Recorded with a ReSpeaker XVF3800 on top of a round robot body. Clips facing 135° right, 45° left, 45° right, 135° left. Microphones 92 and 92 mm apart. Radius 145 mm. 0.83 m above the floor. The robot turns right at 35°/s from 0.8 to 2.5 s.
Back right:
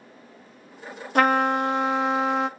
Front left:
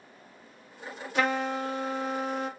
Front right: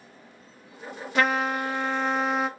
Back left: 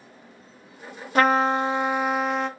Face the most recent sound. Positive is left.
turn(degrees=-130)